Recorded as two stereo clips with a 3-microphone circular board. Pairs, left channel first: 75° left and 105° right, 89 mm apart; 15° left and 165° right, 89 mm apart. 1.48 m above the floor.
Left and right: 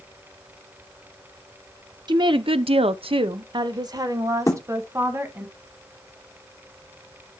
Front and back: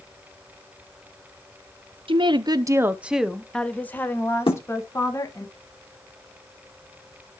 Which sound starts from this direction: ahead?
A thud, at 4.5 s.